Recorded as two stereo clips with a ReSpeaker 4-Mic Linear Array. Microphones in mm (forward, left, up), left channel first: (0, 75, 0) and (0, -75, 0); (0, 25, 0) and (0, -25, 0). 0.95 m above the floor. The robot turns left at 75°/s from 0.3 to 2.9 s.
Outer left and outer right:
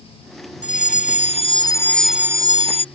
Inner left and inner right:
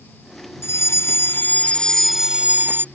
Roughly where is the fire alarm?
Left.